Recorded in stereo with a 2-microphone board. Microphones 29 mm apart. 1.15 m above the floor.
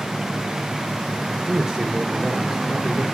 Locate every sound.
1.3 s a man speaking: 25° right (ahead or behind), 4 m